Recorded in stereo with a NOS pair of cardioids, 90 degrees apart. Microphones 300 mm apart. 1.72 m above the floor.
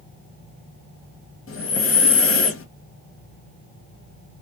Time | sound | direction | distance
1.5 | breathing | 45° left | 1.0 m